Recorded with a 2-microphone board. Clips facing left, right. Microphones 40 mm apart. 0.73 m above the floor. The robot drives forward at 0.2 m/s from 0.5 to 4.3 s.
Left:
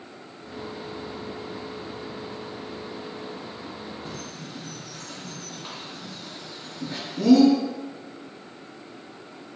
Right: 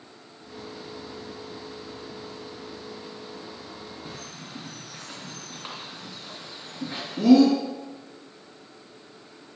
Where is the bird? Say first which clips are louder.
Left 3 dB; 25° right (ahead or behind), 2.5 m.